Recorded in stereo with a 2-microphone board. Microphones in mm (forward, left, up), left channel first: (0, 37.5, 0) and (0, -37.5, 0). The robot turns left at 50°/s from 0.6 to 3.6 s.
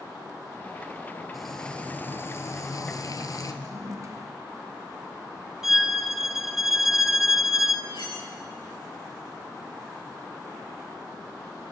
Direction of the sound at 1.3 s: Straight behind.